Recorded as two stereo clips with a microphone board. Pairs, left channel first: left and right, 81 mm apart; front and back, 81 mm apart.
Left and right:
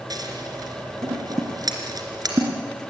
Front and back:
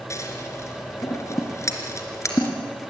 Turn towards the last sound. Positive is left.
turn(degrees=-50)